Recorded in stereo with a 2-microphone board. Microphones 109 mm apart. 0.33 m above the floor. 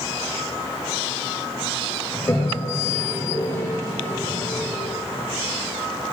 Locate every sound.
2.1 s a toilet flushing: 25° left (ahead or behind), 1.2 m